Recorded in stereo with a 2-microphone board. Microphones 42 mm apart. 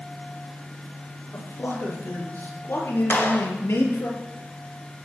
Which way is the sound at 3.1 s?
55° left (ahead or behind).